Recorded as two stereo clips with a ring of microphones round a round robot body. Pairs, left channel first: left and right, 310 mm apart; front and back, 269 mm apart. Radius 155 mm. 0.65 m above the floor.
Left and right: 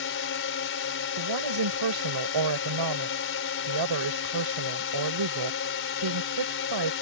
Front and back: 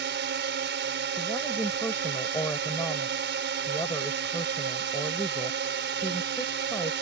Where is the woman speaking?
85° right.